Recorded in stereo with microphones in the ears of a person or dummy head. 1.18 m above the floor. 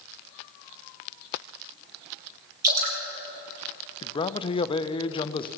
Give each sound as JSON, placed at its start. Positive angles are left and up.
{"t": 2.6, "sound": "dripping", "side_deg": -55, "distance_m": 3.0}
{"t": 4.0, "sound": "a man speaking", "side_deg": 25, "distance_m": 0.6}